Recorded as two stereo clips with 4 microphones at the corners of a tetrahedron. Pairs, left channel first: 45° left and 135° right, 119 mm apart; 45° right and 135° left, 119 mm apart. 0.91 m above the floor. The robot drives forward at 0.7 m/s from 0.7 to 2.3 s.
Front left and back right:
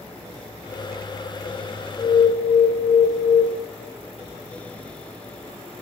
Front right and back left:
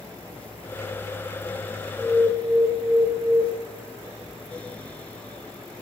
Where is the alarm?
40° left, 0.9 m; by 3.4 s 55° left, 0.7 m.